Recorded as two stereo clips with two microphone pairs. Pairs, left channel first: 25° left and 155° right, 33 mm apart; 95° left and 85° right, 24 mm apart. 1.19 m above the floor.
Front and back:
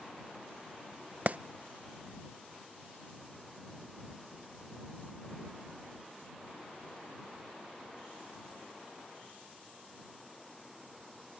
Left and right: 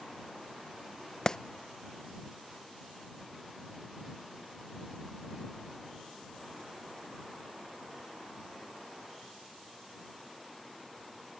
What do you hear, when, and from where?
1.3 s a clap: 160° left